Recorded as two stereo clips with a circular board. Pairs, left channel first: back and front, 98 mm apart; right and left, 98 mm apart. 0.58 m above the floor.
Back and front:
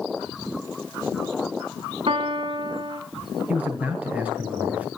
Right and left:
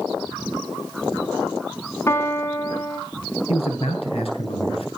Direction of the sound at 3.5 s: 75° right.